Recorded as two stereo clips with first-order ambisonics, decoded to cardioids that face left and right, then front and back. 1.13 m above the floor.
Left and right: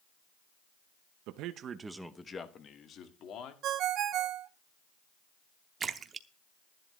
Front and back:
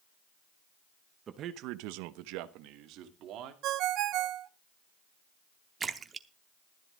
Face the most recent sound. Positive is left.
turn(degrees=-130)